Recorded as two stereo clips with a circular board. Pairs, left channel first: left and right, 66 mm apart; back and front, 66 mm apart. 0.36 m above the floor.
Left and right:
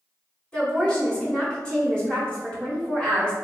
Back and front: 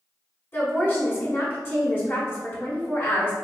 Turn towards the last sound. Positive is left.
turn(degrees=155)